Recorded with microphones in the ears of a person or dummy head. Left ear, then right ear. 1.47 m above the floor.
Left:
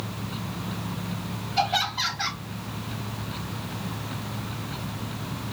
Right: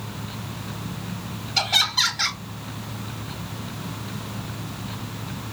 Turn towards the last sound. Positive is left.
turn(degrees=-80)